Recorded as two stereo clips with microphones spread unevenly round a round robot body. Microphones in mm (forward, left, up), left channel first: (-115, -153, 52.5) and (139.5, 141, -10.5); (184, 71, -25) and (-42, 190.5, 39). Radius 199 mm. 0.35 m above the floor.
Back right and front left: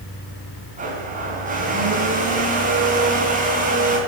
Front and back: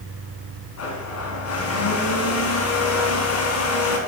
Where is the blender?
20° right, 3 m.